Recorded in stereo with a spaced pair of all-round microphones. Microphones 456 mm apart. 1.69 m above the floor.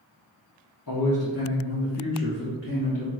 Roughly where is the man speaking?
Left.